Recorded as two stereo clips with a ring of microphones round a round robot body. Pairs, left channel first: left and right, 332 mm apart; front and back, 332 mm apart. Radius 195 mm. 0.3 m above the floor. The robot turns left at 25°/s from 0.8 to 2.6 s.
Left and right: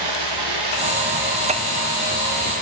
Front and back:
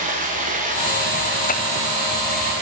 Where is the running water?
115° right, 9.5 m; by 2.6 s 160° right, 9.5 m.